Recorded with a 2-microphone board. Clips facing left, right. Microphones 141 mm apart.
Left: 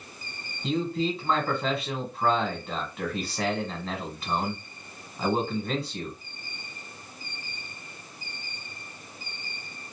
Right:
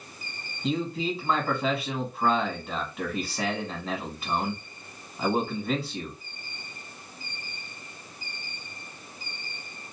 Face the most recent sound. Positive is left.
turn(degrees=0)  # may be behind; listen again after turning